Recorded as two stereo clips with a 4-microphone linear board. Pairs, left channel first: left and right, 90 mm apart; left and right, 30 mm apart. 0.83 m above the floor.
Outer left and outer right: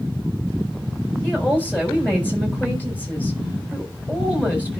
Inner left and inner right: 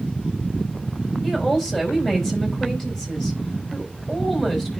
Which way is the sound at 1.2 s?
15° left (ahead or behind).